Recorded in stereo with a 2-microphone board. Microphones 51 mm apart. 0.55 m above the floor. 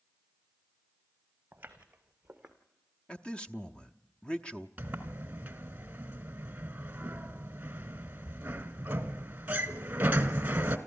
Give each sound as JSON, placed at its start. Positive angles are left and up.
{"t": 1.5, "sound": "footsteps", "side_deg": -30, "distance_m": 2.0}
{"t": 3.1, "sound": "a man speaking", "side_deg": 20, "distance_m": 0.8}
{"t": 4.8, "sound": "a sliding door", "side_deg": -35, "distance_m": 1.5}